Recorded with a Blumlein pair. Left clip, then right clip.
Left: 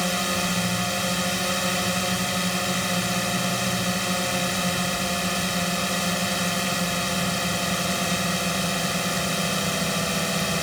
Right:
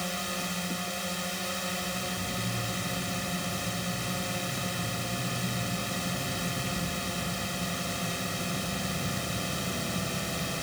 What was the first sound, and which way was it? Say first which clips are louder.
A drone: left 9 dB; 25° left.